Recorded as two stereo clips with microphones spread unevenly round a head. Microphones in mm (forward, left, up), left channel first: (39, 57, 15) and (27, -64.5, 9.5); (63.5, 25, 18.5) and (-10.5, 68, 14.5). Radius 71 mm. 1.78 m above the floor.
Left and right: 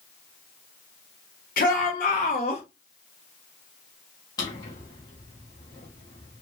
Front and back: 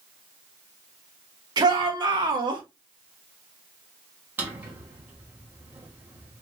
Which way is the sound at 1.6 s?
115° left.